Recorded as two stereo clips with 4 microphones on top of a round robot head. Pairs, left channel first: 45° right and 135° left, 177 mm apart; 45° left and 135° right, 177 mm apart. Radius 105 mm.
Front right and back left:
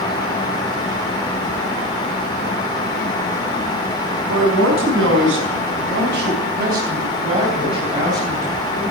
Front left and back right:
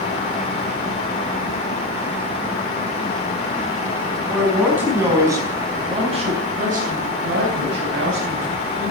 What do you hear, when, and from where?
4.3 s a man speaking: 135° left, 5.5 m; by 8.9 s 145° right, 5 m